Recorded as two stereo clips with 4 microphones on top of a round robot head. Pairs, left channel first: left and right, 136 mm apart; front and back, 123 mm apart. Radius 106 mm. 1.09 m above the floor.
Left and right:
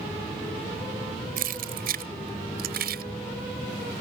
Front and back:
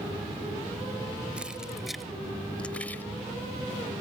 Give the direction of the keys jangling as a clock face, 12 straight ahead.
3 o'clock.